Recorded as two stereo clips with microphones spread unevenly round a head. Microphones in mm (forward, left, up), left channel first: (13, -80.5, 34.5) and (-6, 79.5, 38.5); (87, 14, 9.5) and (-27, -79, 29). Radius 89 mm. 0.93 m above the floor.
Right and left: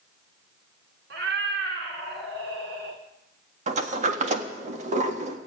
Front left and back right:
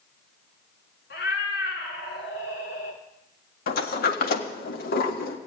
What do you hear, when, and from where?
1.1 s a cat meowing: 75° left, 3 m
3.7 s a sliding door: 50° left, 1.5 m